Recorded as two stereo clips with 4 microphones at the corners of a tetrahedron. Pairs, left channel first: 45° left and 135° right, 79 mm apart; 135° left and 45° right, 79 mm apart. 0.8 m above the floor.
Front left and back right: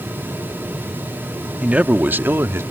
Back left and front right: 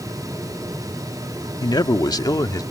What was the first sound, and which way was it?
A man speaking, 150° left.